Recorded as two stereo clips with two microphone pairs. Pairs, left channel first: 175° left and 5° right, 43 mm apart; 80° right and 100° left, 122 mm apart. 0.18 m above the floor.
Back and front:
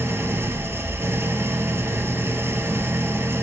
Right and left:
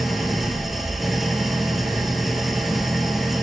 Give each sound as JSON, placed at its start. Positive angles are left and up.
{"t": 0.0, "sound": "an engine running", "azimuth_deg": 5, "distance_m": 0.8}